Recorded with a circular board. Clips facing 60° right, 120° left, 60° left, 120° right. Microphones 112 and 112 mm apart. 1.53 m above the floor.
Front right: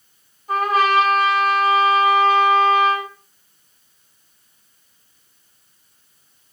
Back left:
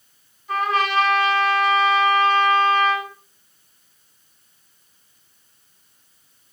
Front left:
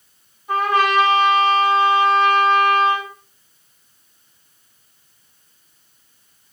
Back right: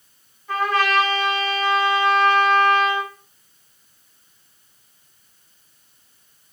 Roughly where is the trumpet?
Ahead.